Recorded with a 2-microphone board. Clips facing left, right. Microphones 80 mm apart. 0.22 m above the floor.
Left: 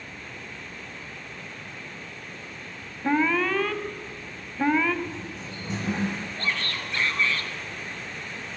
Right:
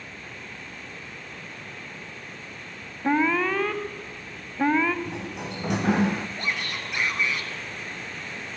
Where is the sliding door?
70° right (ahead or behind), 1.8 m.